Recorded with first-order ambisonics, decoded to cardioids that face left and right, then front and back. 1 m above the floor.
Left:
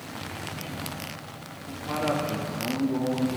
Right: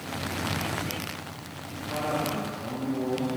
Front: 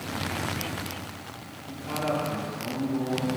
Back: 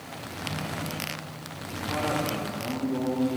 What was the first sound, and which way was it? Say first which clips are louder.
A man speaking: left 2 dB, back 1 dB; 65° left.